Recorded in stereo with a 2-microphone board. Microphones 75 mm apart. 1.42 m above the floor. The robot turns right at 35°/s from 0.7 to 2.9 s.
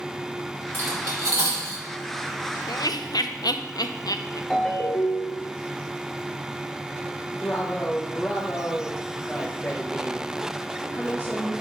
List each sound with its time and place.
0.7 s cutlery clinking: 35° right (ahead or behind), 3 m; by 1.8 s 70° right (ahead or behind), 3 m
2.7 s laughter: 60° left (ahead or behind), 0.6 m; by 4.4 s 65° left (ahead or behind), 0.6 m
4.5 s a ringtone: 10° left (ahead or behind), 1.8 m
7.4 s a woman speaking: 20° left (ahead or behind), 1.1 m